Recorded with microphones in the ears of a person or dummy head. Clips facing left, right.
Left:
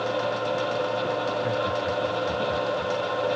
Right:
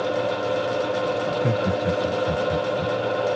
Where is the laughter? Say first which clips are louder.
Right 3 dB; 40° right (ahead or behind); by 3.0 s 30° right (ahead or behind).